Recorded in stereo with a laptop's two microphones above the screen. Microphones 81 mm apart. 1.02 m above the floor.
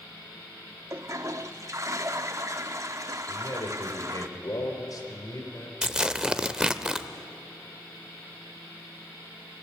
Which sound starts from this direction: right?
A toilet flushing, at 0.9 s.